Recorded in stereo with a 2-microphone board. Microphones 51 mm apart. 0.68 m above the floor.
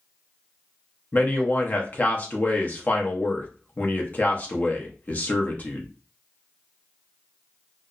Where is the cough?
I don't hear a cough.